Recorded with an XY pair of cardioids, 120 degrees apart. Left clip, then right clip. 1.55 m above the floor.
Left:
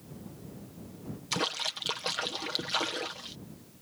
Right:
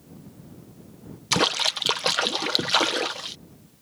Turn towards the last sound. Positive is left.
turn(degrees=-55)